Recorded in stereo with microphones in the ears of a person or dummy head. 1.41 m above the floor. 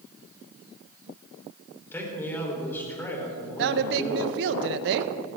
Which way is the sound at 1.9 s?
15° left (ahead or behind).